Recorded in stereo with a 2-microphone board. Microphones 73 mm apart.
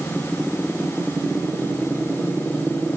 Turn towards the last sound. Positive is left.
No sound to turn to.